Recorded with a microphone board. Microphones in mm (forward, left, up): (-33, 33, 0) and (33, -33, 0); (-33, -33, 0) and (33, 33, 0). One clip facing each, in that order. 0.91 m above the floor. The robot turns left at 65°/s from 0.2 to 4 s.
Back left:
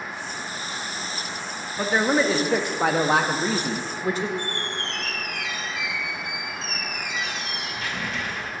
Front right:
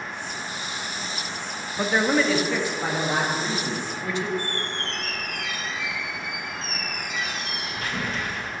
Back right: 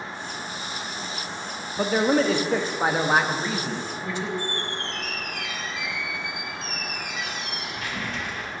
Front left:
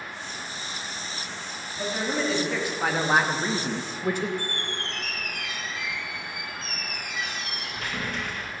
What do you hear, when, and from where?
1.8 s a man speaking: 130° right, 0.9 m; by 4.3 s 85° left, 0.9 m
4.4 s a squeak: 5° left, 1.6 m